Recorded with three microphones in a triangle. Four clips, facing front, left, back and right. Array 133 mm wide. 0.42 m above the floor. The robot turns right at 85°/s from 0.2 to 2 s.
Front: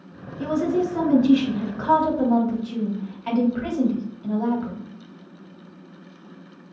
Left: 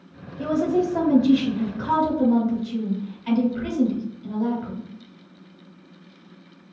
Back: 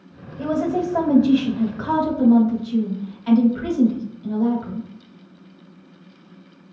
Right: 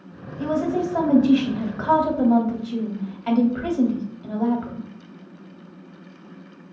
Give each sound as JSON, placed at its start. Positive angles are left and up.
{"t": 0.4, "sound": "a woman speaking", "azimuth_deg": 160, "distance_m": 1.4}